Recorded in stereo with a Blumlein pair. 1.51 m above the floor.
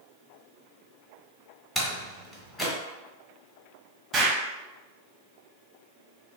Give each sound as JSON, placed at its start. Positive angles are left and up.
{"t": 1.8, "sound": "a door slam", "azimuth_deg": 10, "distance_m": 1.5}
{"t": 4.1, "sound": "an explosion", "azimuth_deg": -20, "distance_m": 1.2}